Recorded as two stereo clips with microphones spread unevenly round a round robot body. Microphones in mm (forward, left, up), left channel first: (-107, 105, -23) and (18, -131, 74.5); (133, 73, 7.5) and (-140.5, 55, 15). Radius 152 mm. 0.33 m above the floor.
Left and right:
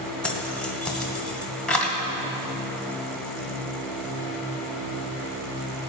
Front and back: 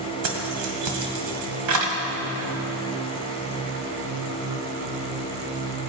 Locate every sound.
0.2 s keys jangling: 165° right, 1.6 m